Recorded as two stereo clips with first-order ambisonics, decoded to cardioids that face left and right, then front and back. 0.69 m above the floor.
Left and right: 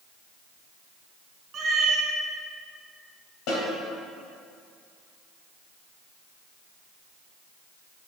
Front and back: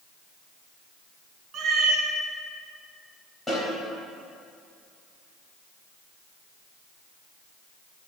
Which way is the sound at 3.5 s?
80° left.